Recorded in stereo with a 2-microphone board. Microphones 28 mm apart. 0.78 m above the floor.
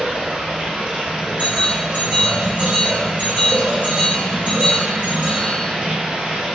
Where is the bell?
50° right (ahead or behind), 1.9 m.